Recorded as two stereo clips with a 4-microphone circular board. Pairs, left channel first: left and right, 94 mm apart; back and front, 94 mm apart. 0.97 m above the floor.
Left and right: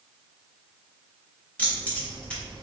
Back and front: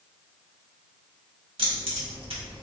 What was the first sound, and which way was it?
Keys jangling, 15° left.